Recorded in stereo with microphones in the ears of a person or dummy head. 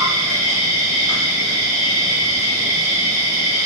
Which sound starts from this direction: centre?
An insect, at 0.0 s.